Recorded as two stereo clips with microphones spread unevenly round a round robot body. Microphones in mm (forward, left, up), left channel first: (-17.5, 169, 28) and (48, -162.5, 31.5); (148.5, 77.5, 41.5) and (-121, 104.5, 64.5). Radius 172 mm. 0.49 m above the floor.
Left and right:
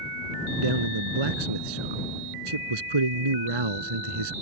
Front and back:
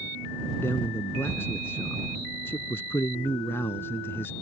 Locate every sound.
0.6 s a man speaking: 90° right